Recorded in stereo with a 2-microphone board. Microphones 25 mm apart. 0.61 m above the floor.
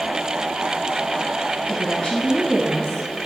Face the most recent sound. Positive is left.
turn(degrees=20)  # may be behind; listen again after turning